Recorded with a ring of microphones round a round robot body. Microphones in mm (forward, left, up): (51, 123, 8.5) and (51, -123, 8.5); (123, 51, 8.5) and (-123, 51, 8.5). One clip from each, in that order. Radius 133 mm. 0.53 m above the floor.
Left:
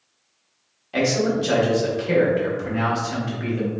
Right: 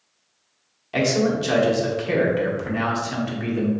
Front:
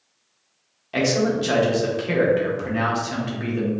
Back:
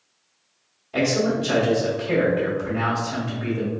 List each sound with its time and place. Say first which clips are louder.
0.9 s a man speaking: even, front 1 dB; 20° right, 1.0 m